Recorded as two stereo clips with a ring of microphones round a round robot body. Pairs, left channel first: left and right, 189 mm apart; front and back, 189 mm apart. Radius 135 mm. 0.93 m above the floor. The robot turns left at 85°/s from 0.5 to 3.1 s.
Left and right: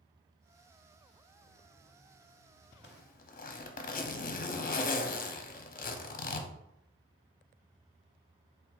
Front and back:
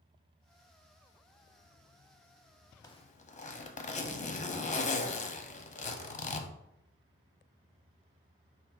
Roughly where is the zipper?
Left.